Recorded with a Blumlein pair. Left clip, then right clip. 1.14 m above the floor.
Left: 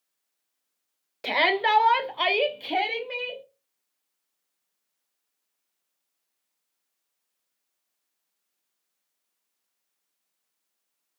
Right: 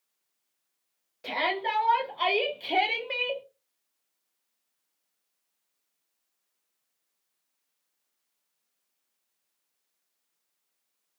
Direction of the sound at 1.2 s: 60° left.